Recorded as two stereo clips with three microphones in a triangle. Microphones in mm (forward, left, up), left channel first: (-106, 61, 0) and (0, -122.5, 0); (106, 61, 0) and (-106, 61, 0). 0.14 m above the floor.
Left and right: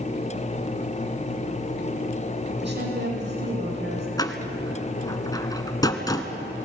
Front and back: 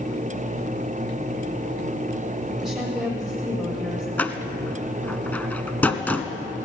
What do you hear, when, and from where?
2.6 s a woman speaking: 90° right, 6.5 m
4.2 s a door slam: 75° left, 1.3 m